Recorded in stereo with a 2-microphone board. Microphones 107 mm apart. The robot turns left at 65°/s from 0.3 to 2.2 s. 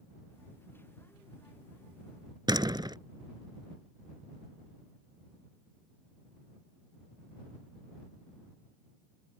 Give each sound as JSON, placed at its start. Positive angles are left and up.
{"t": 2.5, "sound": "a door slam", "side_deg": -40}